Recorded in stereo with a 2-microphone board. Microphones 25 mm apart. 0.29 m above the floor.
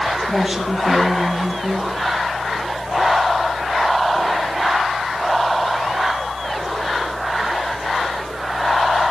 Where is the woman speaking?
5° right (ahead or behind), 4.5 m.